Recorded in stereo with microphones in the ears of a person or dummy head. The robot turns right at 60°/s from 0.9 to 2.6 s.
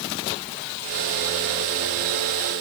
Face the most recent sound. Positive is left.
No sound to turn to.